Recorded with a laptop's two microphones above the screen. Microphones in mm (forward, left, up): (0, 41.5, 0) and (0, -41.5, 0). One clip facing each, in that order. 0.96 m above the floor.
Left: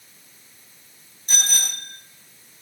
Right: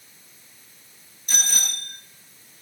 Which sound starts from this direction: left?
A bicycle bell, at 1.3 s.